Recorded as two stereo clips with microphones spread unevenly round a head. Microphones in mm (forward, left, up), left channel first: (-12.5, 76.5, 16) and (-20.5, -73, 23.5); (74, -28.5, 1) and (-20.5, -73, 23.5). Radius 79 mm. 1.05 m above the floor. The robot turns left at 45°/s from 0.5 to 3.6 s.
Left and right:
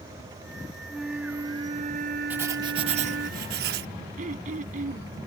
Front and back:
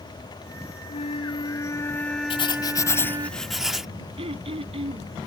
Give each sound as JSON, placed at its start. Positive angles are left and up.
{"t": 0.9, "sound": "a flute", "azimuth_deg": 0}
{"t": 2.3, "sound": "writing", "azimuth_deg": -15}
{"t": 4.2, "sound": "throat clearing", "azimuth_deg": -130}